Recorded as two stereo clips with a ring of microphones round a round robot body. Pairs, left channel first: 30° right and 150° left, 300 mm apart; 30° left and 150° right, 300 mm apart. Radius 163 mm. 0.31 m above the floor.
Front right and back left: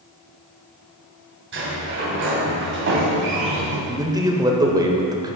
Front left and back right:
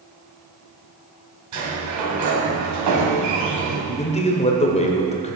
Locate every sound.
1.5 s a sliding door: 165° right, 3 m
3.9 s a man speaking: 80° left, 1.3 m